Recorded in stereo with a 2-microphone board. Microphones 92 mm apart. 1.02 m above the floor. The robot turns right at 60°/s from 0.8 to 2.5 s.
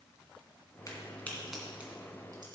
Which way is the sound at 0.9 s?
40° left (ahead or behind).